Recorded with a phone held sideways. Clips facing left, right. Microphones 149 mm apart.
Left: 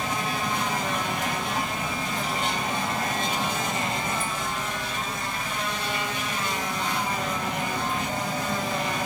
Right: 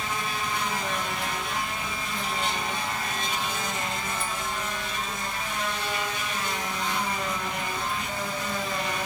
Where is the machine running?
45° left (ahead or behind).